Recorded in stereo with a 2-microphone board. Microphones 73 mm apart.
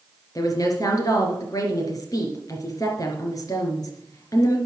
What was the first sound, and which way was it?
A woman speaking, 55° left (ahead or behind).